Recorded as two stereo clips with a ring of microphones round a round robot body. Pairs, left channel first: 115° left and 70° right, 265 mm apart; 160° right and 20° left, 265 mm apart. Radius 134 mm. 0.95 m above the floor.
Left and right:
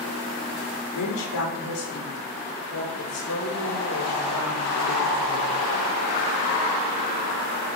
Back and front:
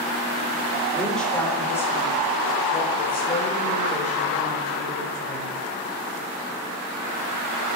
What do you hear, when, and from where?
0.9 s a woman speaking: 115° left, 4 m; by 5.5 s 145° left, 6.5 m